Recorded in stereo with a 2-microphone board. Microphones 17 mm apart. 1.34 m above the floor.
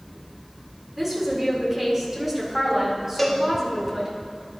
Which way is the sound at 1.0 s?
30° right (ahead or behind).